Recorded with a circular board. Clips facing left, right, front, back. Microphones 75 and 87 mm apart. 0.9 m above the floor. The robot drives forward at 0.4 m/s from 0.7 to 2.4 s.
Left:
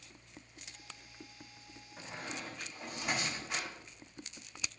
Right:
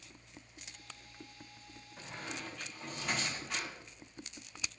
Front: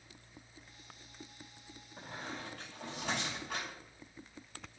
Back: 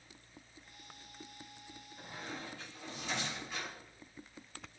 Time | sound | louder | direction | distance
2.0 | a squeak | left 1 dB, front 1 dB | 10° left | 4.5 m